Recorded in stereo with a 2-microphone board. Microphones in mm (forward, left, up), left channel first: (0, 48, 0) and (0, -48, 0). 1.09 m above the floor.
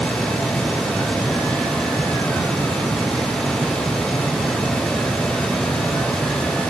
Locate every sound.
Only background noise.